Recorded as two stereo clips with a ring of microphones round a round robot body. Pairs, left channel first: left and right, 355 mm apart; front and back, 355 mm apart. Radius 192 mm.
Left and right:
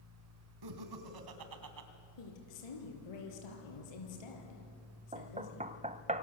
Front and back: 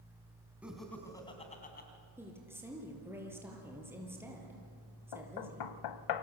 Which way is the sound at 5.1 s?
20° right.